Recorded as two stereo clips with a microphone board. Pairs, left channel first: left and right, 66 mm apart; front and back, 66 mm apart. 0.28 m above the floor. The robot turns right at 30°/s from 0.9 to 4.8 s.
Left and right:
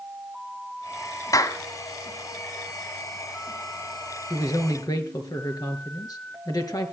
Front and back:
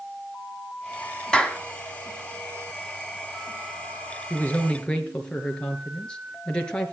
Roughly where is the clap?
Left.